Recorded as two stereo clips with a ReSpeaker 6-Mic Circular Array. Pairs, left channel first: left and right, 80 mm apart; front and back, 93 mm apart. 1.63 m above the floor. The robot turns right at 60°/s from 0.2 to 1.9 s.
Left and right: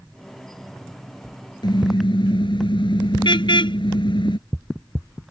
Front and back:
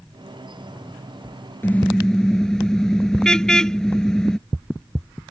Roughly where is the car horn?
Ahead left.